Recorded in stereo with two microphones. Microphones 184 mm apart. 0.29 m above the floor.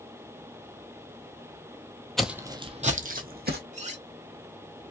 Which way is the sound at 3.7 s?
40° right (ahead or behind).